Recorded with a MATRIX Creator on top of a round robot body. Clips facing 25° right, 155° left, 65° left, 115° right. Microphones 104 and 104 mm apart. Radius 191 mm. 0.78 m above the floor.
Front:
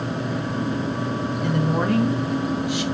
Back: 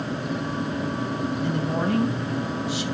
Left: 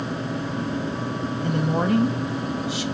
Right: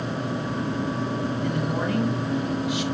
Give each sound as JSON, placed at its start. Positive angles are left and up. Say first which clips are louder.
{"t": 1.4, "sound": "a woman speaking", "louder": "front 5 dB, left 3 dB", "azimuth_deg": 10, "distance_m": 4.0}